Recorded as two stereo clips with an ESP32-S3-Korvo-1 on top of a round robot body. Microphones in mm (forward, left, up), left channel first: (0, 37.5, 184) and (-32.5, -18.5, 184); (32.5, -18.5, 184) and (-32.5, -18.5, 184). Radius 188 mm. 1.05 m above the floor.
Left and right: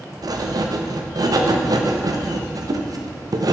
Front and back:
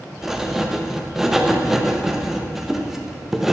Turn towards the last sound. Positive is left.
turn(degrees=-95)